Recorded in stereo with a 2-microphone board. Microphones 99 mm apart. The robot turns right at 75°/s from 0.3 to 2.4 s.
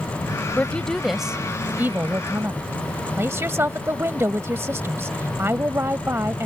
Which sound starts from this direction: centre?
A woman speaking, at 0.6 s.